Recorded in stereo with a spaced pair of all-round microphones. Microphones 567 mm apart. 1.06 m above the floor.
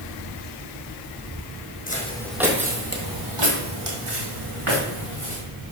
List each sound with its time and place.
1.9 s footsteps: 15° left (ahead or behind), 2 m; by 5.4 s 60° right (ahead or behind), 4 m